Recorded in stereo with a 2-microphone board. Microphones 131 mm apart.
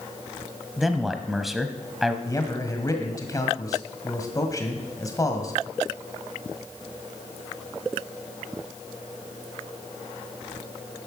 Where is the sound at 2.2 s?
25° left (ahead or behind), 1.7 m.